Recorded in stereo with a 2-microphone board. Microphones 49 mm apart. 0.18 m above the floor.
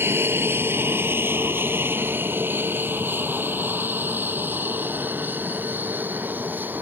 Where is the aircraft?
50° right (ahead or behind); by 6.8 s 35° right (ahead or behind).